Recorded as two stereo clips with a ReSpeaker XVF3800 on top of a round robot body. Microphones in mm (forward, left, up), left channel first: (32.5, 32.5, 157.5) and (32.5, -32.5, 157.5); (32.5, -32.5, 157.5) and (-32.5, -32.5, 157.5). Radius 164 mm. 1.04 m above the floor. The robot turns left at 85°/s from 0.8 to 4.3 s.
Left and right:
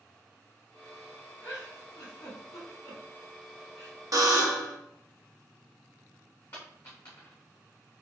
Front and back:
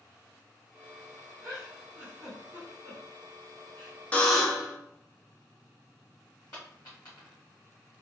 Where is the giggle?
155° left, 1.4 m; by 4.0 s 60° right, 1.4 m.